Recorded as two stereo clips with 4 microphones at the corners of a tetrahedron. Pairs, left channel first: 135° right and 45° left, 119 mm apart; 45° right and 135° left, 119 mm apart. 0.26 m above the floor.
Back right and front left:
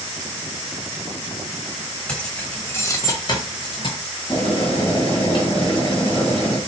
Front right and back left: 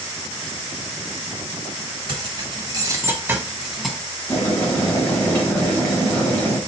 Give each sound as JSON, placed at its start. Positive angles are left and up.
{"t": 2.1, "sound": "keys jangling", "azimuth_deg": 145, "distance_m": 1.2}
{"t": 4.3, "sound": "boiling", "azimuth_deg": -110, "distance_m": 2.5}